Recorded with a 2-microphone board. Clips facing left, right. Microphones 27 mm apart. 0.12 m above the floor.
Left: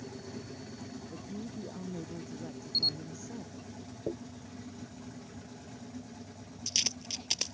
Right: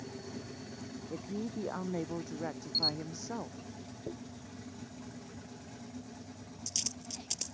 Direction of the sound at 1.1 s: 75° right (ahead or behind).